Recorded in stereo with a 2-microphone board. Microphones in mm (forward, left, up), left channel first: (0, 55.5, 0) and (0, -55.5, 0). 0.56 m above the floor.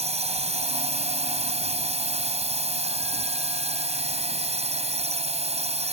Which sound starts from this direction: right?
A drone, at 0.0 s.